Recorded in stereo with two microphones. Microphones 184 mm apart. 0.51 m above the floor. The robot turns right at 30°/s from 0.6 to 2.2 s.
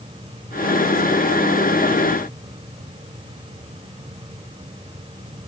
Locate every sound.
Only background noise.